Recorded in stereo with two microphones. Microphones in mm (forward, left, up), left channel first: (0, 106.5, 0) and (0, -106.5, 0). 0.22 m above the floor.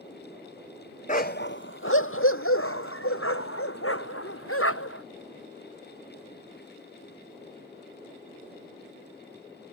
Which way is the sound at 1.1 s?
35° left (ahead or behind).